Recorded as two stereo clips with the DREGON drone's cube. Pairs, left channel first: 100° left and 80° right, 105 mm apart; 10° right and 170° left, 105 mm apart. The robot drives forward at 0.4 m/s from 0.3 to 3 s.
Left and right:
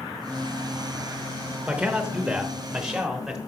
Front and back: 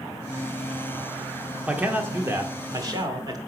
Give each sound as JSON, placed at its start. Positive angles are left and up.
{"t": 1.7, "sound": "a man speaking", "azimuth_deg": -135, "distance_m": 0.9}